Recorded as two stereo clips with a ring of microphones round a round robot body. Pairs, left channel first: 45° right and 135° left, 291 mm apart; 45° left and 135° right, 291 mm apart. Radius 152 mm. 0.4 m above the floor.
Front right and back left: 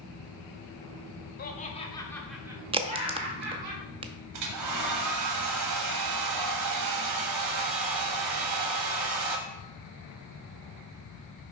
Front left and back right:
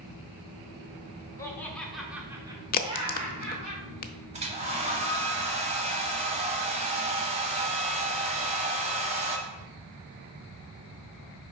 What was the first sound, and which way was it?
Laughter, 25° right.